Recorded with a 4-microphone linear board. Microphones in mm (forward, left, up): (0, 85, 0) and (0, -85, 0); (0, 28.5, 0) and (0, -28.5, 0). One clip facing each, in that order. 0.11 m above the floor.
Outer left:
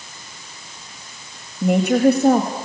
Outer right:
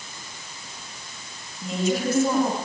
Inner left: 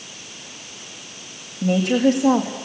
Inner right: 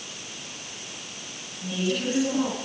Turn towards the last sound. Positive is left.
turn(degrees=65)  # may be behind; listen again after turning